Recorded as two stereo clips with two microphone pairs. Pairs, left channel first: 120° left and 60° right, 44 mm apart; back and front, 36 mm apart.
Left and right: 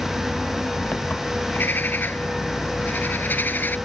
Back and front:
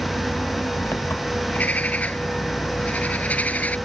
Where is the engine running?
Straight behind.